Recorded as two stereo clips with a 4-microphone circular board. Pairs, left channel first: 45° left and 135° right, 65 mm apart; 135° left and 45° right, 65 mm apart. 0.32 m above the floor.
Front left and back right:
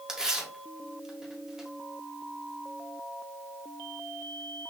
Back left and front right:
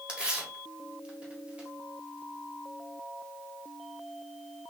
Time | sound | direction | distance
0.1 | tearing paper | 75° right | 1.4 m